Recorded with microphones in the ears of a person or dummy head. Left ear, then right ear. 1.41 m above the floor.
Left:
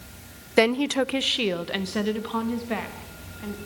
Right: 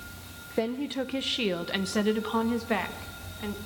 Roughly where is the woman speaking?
Left.